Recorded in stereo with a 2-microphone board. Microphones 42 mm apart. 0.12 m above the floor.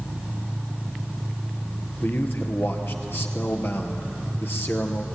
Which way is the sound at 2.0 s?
60° left (ahead or behind).